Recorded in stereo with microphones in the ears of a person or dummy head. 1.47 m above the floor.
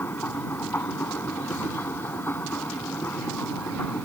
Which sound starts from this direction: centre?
A machine running, at 0.0 s.